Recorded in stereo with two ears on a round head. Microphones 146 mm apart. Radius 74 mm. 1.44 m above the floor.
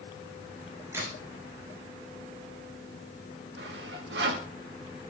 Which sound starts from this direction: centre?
A crack, at 0.9 s.